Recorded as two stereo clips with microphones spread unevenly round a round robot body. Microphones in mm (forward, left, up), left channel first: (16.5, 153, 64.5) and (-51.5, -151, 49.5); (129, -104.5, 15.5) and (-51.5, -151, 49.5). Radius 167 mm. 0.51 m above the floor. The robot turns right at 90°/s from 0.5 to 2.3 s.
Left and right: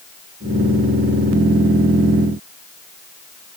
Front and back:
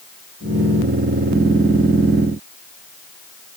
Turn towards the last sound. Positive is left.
No sound to turn to.